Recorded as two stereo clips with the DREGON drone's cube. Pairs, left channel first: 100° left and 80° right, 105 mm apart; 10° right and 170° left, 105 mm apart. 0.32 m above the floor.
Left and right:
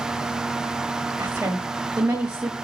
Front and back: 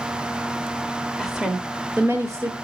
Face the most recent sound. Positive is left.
turn(degrees=-160)